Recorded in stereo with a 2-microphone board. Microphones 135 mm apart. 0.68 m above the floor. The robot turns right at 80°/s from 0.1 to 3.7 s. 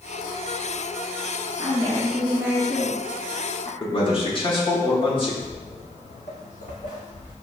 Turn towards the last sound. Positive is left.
turn(degrees=55)  # may be behind; listen again after turning